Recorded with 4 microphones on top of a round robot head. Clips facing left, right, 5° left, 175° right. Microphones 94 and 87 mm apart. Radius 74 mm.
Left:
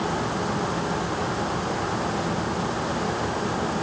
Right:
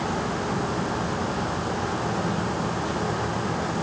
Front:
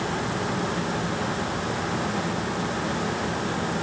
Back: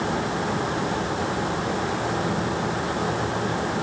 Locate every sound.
Only background noise.